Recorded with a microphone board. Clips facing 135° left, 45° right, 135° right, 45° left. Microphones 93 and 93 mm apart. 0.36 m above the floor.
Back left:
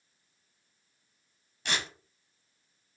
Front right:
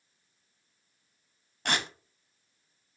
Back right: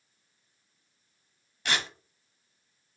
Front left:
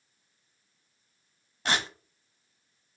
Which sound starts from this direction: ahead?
Tearing paper, at 1.6 s.